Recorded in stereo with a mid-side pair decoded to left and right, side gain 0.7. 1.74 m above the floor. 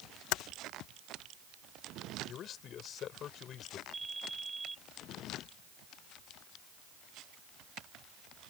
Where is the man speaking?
45° left.